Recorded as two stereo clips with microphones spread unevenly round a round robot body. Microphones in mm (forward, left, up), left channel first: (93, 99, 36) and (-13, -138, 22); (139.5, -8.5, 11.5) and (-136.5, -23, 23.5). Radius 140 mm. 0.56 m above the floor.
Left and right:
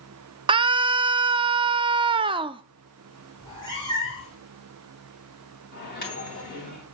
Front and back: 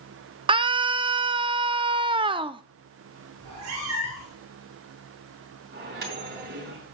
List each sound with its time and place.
0.5 s a scream: 130° right, 0.6 m
3.4 s a cat meowing: 140° left, 5 m
5.7 s a microwave: 125° left, 3 m